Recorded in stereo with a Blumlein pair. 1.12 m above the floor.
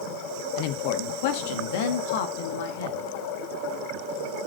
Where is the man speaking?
45° left, 1.3 m; by 3.0 s 55° left, 2.5 m.